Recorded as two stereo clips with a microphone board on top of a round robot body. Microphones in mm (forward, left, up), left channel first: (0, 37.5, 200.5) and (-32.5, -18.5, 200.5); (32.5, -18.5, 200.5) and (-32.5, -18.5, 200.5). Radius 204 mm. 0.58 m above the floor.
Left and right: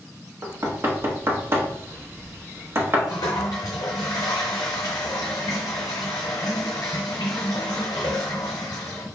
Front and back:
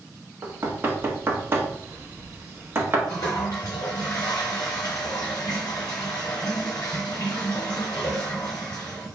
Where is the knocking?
145° right, 1.1 m.